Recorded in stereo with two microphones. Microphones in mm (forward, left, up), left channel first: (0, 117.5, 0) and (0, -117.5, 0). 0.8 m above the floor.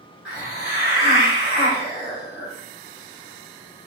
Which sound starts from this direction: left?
A hiss, at 0.2 s.